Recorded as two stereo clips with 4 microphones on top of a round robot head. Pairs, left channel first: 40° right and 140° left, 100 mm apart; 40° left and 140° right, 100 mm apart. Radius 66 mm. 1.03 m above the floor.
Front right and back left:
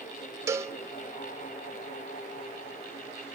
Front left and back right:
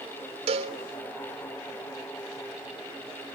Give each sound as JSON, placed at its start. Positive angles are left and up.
{"t": 0.5, "sound": "a cowbell", "azimuth_deg": -160, "distance_m": 1.3}